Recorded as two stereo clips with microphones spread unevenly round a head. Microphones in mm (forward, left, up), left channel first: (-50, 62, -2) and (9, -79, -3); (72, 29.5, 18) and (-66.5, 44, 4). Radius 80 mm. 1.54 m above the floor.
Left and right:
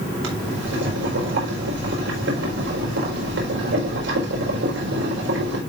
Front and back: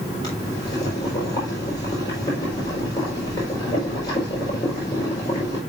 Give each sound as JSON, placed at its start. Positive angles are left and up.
{"t": 0.2, "sound": "boiling", "azimuth_deg": -75, "distance_m": 5.0}